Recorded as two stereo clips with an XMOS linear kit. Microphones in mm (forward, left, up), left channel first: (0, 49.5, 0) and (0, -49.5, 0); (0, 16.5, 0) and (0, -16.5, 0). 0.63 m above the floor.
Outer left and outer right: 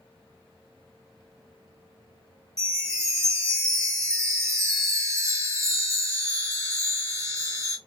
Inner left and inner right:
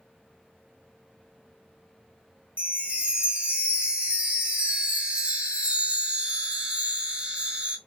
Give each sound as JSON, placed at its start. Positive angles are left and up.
{"t": 2.6, "sound": "a chime", "side_deg": -30, "distance_m": 0.7}